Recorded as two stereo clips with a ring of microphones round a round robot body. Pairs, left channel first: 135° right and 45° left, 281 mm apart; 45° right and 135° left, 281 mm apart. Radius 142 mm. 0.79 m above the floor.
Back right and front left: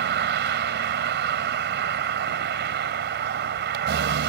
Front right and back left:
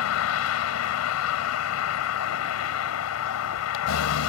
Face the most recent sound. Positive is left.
turn(degrees=-10)